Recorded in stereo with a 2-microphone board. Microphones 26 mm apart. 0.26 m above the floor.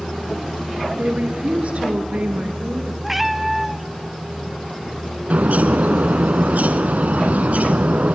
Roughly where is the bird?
Right.